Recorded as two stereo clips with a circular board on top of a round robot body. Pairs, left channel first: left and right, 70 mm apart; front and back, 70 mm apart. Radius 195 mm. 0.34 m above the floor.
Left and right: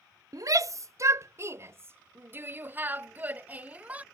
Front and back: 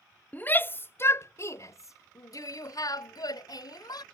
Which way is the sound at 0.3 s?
60° right.